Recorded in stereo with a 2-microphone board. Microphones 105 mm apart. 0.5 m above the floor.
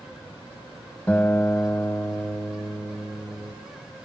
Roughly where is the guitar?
Centre.